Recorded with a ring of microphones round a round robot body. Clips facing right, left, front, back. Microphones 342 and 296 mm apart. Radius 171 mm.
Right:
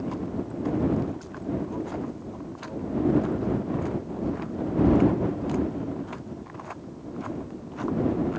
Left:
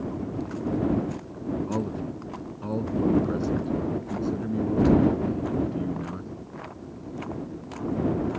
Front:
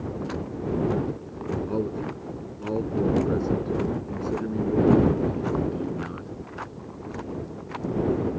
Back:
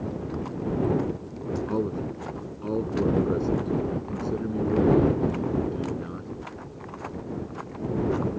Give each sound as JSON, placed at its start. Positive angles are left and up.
{"t": 1.7, "sound": "a man speaking", "azimuth_deg": 100}